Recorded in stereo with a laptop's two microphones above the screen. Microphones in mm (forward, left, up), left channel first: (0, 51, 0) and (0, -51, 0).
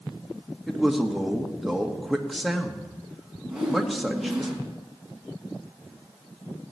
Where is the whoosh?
5° right (ahead or behind), 5 m.